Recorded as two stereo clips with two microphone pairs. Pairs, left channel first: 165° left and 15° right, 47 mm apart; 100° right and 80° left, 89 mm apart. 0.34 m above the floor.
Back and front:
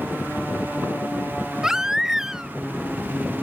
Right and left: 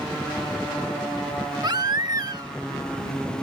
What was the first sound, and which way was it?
A baby crying, 65° left.